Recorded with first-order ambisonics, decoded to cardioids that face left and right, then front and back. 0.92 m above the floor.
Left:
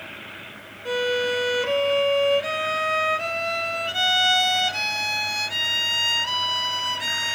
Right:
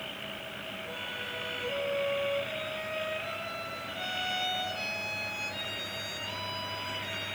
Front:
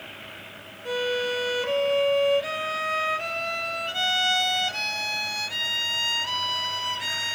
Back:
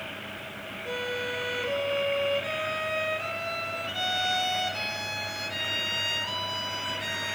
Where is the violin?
70° left, 0.5 m.